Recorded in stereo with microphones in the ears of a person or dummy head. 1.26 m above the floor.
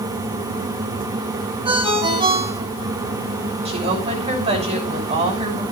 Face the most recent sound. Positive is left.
turn(degrees=-40)  # may be behind; listen again after turning